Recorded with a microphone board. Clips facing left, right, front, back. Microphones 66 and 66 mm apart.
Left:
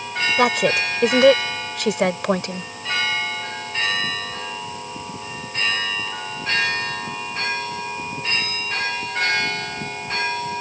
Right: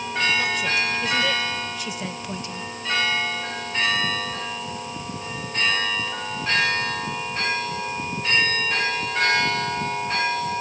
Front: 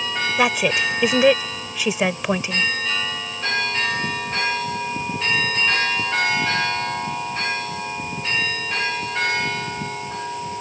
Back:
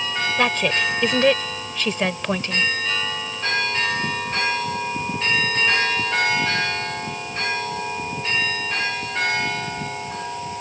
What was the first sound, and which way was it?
A woman speaking, 80° left.